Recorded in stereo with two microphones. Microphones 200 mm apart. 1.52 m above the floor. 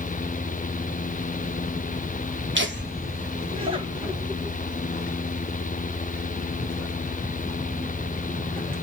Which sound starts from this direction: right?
Laughter, at 2.5 s.